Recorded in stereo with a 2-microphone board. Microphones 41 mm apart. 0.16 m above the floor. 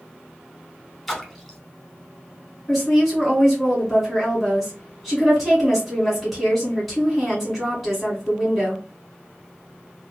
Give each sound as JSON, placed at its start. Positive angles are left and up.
{"t": 1.1, "sound": "a splash", "side_deg": 0, "distance_m": 0.8}
{"t": 2.7, "sound": "a woman speaking", "side_deg": 0, "distance_m": 1.9}